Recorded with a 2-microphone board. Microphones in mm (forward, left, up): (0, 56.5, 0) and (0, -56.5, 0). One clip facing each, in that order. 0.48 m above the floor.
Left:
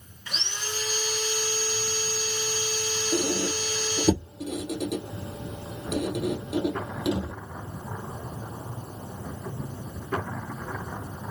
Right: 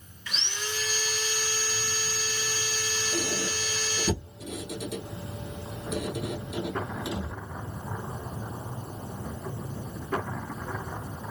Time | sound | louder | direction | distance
0.3 | sawing | even | 35° left (ahead or behind) | 0.7 m
3.1 | a squeak | left 6 dB | 70° left (ahead or behind) | 1.5 m